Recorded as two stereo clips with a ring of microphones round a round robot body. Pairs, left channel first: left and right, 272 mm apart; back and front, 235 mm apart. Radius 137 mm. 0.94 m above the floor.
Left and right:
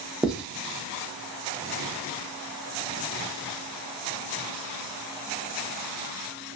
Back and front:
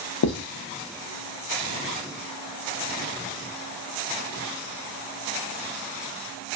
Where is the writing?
175° right, 0.8 m.